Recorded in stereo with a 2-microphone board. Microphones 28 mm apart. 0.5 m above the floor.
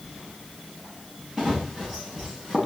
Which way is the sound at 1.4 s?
15° right (ahead or behind).